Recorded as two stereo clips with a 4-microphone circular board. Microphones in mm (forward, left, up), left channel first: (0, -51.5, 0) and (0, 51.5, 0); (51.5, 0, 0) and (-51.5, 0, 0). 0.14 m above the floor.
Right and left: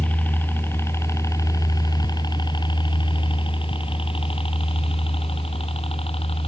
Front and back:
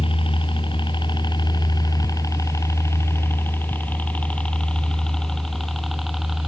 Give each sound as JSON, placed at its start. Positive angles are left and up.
{"t": 0.0, "sound": "a helicopter", "azimuth_deg": -20}